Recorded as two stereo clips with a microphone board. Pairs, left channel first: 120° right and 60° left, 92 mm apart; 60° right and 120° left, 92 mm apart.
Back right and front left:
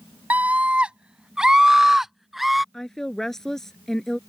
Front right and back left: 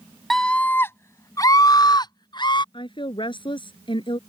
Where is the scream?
20° left; by 2.6 s 30° right.